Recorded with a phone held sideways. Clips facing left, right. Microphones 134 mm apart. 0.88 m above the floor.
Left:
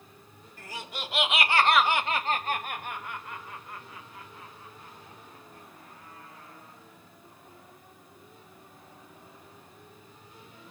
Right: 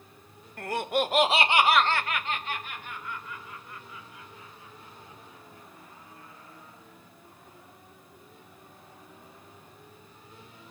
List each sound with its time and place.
0.6 s laughter: 60° right (ahead or behind), 1.0 m; by 6.8 s 75° left (ahead or behind), 4 m